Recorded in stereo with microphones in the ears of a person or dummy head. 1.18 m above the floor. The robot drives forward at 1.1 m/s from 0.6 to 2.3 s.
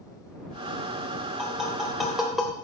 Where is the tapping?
Centre (ahead or behind), 2.5 m.